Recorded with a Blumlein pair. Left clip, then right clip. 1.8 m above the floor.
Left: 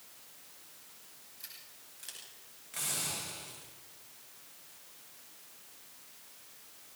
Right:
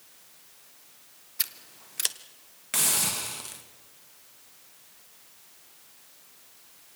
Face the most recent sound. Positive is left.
turn(degrees=-50)